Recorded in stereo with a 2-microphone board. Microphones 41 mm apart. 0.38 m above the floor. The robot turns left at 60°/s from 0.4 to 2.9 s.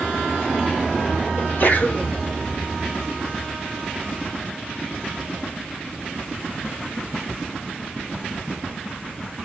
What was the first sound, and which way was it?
A sneeze, 85° left.